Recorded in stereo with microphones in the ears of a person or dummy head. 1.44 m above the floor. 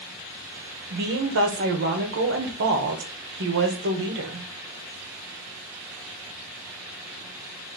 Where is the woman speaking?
60° right (ahead or behind), 1.1 m.